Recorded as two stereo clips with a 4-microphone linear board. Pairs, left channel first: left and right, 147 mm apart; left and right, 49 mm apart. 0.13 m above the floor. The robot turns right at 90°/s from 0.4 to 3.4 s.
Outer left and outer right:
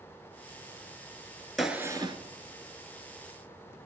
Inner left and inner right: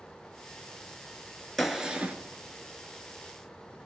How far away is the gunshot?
About 1.0 m.